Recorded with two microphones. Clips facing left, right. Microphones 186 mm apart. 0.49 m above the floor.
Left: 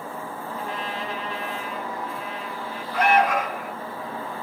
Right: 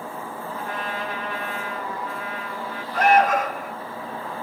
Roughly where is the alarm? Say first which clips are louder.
Right 2 dB; right.